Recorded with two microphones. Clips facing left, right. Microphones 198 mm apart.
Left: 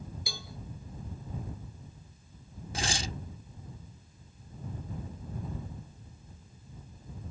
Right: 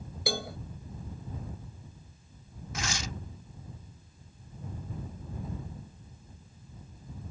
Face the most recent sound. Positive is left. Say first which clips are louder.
# left 2 dB
turn(degrees=30)  # may be behind; listen again after turning